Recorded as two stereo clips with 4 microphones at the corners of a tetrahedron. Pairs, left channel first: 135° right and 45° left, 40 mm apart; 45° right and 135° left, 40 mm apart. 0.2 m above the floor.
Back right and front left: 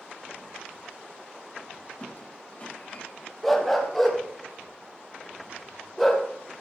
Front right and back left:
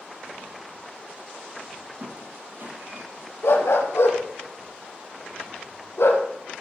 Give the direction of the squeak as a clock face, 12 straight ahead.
6 o'clock.